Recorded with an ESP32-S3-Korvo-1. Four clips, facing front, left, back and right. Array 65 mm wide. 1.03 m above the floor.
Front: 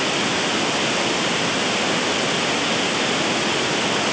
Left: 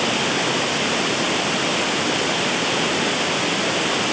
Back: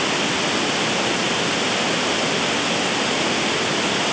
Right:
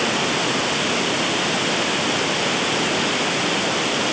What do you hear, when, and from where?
Only background noise.